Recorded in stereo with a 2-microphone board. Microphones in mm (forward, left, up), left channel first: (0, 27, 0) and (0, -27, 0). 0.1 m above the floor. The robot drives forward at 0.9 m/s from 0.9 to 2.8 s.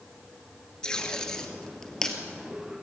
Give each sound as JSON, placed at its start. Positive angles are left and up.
{"t": 0.8, "sound": "tape being pulled", "side_deg": 15, "distance_m": 2.0}